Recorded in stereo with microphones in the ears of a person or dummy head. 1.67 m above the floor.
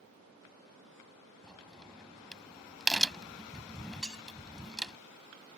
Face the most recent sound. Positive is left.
turn(degrees=0)  # may be behind; listen again after turning